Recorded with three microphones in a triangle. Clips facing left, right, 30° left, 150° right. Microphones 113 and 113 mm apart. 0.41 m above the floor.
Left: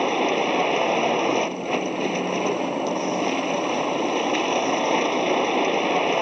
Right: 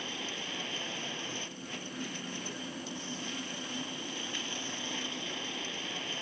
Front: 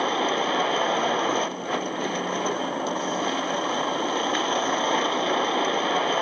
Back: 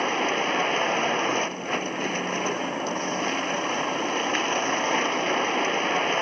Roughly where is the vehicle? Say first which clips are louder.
Left 21 dB, front 1 dB; left.